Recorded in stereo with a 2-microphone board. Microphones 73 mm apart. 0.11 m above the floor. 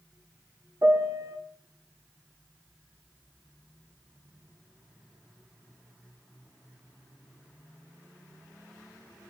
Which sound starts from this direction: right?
A piano, at 0.8 s.